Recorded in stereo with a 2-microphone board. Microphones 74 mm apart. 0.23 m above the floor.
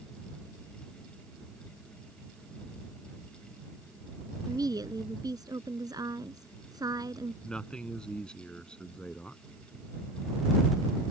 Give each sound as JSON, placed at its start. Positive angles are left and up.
{"t": 4.5, "sound": "a woman speaking", "side_deg": -65}
{"t": 7.4, "sound": "a man speaking", "side_deg": 15}